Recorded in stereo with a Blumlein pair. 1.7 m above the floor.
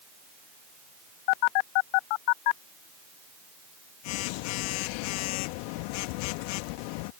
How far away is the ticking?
No ticking in this recording.